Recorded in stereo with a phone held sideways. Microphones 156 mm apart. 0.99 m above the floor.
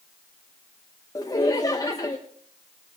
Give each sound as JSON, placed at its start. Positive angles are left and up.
{"t": 1.1, "sound": "laughter", "side_deg": 20, "distance_m": 0.7}